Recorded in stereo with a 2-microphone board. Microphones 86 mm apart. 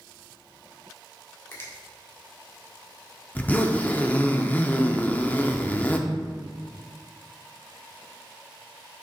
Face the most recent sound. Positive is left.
turn(degrees=20)  # may be behind; listen again after turning